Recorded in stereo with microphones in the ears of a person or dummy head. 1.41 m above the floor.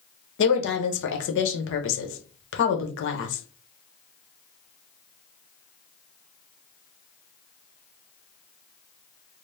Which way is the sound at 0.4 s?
65° left (ahead or behind).